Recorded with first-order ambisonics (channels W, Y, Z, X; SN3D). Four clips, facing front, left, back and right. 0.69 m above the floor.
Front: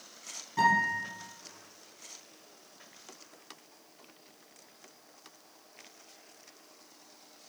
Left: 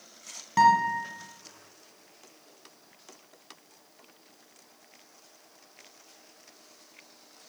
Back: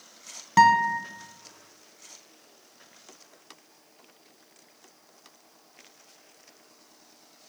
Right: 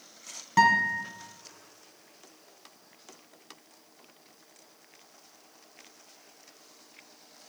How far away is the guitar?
About 1.6 m.